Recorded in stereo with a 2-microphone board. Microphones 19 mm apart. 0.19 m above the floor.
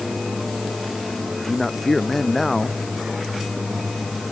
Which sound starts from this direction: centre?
A man speaking, at 1.3 s.